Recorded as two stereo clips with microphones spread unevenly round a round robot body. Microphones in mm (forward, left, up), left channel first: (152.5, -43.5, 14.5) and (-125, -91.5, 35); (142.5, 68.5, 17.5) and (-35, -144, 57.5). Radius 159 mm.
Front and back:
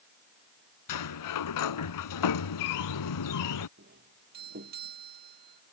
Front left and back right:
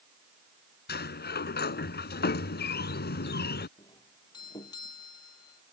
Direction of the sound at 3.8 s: 130° left.